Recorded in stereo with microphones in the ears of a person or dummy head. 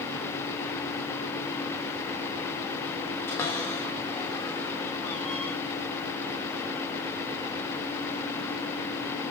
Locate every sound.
3.3 s a cupboard door: 15° left (ahead or behind), 6.5 m